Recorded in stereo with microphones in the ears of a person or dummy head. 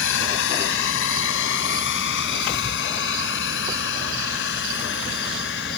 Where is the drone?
60° left (ahead or behind); by 5.8 s 55° left (ahead or behind).